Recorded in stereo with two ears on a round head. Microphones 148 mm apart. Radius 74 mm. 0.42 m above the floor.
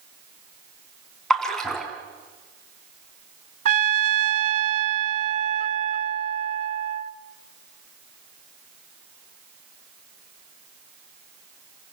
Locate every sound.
1.3 s a splash: 5° left (ahead or behind), 5 m
3.6 s a trumpet: 45° right (ahead or behind), 0.8 m